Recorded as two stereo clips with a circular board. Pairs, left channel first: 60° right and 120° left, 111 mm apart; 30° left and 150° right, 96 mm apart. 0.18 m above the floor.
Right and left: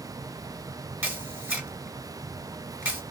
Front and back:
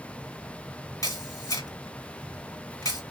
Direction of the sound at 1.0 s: 50° left.